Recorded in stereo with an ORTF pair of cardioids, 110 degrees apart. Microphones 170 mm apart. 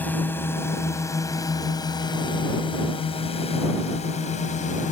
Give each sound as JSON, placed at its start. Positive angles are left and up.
{"t": 0.0, "sound": "a drone", "azimuth_deg": 10}